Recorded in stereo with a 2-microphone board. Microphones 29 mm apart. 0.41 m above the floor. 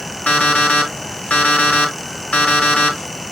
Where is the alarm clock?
55° left (ahead or behind), 2 m.